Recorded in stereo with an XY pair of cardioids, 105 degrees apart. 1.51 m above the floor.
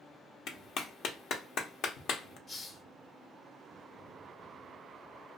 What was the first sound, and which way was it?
A clap, 65° left.